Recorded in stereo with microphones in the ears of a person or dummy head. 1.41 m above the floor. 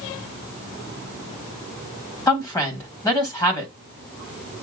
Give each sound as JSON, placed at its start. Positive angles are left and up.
{"t": 2.3, "sound": "a woman speaking", "side_deg": 15, "distance_m": 1.6}